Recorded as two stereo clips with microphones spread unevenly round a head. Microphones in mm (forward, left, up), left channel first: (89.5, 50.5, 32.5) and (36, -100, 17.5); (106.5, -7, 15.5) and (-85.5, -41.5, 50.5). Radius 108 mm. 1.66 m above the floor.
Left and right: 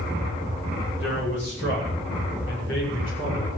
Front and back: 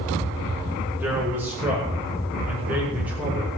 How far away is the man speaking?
About 9 m.